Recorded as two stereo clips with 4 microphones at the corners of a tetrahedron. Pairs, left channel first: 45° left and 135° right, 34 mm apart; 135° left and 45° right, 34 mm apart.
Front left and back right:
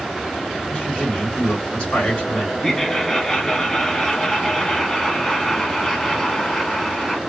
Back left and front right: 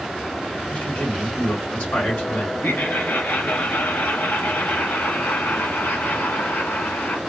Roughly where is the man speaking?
Left.